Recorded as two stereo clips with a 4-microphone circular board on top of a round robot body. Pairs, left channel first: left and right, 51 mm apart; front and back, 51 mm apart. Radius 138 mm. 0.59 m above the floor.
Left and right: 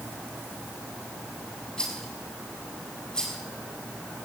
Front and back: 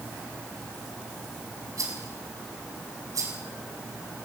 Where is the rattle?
165° left, 5.5 m.